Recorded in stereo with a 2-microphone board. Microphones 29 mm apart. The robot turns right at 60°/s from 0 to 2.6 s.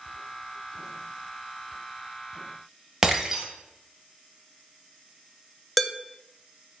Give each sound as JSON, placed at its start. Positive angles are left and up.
{"t": 3.0, "sound": "breaking glass", "side_deg": -15, "distance_m": 1.1}
{"t": 5.8, "sound": "dishes clattering", "side_deg": -5, "distance_m": 0.7}